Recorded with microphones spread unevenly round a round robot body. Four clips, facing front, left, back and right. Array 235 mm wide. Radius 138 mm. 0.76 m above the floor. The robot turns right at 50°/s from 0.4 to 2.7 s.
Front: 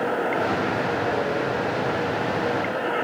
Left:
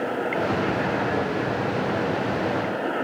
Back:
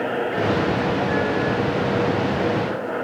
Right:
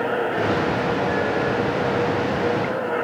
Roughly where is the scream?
No scream in this recording.